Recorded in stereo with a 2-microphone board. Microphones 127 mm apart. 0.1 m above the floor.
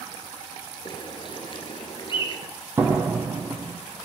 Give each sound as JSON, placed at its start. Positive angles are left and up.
{"t": 0.8, "sound": "a bird", "side_deg": 40, "distance_m": 1.8}
{"t": 2.8, "sound": "a door slam", "side_deg": -15, "distance_m": 2.5}